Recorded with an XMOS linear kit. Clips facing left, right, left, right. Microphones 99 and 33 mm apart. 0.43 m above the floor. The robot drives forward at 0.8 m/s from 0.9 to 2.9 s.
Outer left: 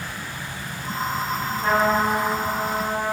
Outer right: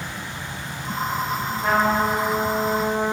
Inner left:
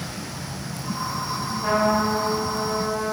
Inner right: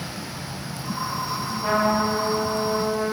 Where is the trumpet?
5° right (ahead or behind), 1.5 m.